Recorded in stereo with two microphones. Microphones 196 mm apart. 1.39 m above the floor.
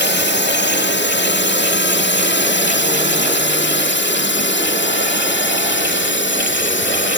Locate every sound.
0.0 s a drone: 65° left (ahead or behind); by 7.2 s 75° left (ahead or behind)